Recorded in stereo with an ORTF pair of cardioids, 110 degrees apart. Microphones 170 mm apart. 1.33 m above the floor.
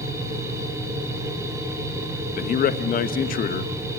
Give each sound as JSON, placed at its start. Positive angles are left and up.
{"t": 0.0, "sound": "a machine running", "azimuth_deg": -15, "distance_m": 6.0}
{"t": 2.4, "sound": "a man speaking", "azimuth_deg": 55, "distance_m": 1.4}